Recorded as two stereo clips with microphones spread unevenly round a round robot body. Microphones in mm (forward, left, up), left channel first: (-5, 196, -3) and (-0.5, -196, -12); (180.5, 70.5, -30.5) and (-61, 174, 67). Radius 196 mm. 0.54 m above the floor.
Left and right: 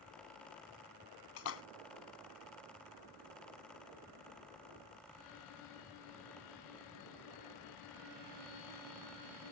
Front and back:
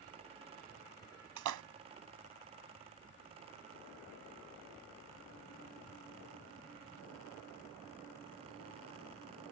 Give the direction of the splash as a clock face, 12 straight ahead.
7 o'clock.